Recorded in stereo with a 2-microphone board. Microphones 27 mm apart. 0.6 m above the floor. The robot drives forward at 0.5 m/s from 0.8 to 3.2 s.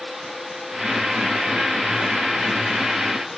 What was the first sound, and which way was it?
Only background noise.